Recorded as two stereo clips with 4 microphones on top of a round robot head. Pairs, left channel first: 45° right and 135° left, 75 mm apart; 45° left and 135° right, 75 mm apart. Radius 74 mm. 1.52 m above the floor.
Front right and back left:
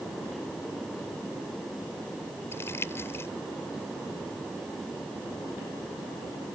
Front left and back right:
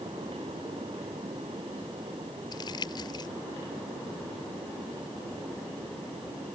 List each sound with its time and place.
2.5 s crumpling: 15° left